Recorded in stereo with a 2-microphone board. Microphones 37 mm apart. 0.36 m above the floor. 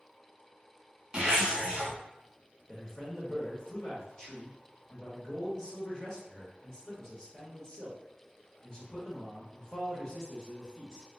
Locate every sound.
1.1 s a zipper: 20° right (ahead or behind), 1.5 m
2.7 s a man speaking: 20° left (ahead or behind), 0.9 m